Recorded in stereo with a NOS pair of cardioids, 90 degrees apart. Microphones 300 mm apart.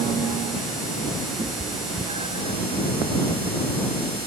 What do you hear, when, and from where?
1.4 s a cat meowing: 20° right